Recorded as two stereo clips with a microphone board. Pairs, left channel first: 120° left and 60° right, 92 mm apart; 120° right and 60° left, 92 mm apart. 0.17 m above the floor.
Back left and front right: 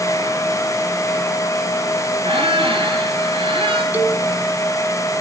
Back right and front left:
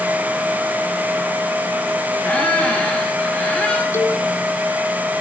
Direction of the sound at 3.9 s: 110° right.